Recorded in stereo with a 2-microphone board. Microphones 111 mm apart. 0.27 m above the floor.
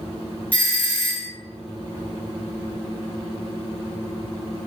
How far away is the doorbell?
About 1.5 m.